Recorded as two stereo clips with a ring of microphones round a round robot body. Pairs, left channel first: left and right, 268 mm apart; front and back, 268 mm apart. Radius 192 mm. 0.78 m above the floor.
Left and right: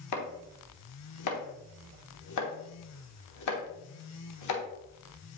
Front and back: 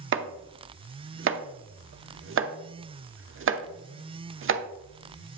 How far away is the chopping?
About 0.9 m.